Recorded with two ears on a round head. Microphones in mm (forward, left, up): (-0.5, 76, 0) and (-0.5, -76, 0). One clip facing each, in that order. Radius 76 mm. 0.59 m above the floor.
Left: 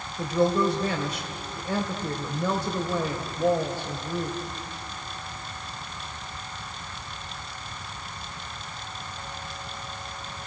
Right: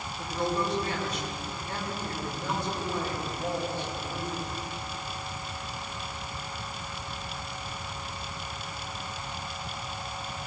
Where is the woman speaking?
60° left (ahead or behind), 3 m.